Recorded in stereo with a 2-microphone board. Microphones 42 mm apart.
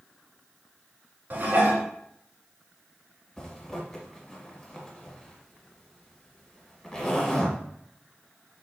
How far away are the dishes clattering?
About 1.1 m.